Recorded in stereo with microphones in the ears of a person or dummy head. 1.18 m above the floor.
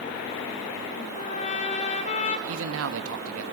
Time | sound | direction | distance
1.1 | a trumpet | 40° left (ahead or behind) | 1.8 m
2.5 | a man speaking | 75° right (ahead or behind) | 1.5 m